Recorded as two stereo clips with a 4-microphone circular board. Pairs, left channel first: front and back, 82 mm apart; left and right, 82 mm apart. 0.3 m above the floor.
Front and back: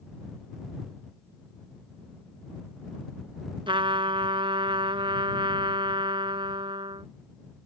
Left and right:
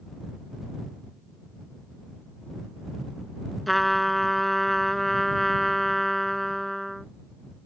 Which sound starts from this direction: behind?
A trumpet, at 3.7 s.